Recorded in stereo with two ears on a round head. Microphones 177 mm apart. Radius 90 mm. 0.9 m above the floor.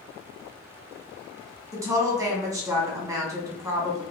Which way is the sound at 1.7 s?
15° right (ahead or behind).